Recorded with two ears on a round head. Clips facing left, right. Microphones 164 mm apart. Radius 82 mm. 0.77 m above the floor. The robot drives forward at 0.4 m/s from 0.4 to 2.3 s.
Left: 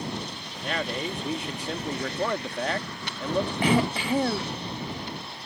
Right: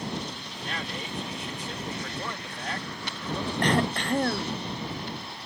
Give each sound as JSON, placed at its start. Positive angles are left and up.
{"t": 0.6, "sound": "a man speaking", "side_deg": 55}
{"t": 3.6, "sound": "throat clearing", "side_deg": 5}